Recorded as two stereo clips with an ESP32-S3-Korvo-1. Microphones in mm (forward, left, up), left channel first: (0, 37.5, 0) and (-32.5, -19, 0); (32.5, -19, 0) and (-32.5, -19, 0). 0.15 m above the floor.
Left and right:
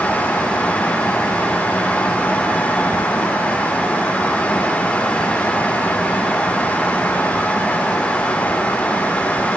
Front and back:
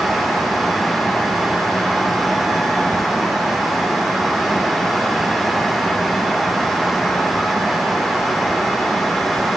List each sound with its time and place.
Only background noise.